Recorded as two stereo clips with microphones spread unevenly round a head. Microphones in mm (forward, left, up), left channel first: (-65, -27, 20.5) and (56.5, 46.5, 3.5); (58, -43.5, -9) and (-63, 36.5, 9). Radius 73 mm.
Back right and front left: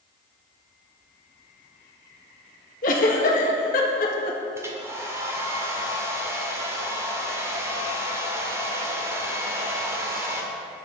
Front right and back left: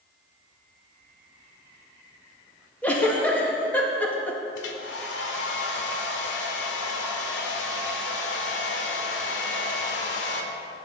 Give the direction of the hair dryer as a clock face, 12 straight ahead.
1 o'clock.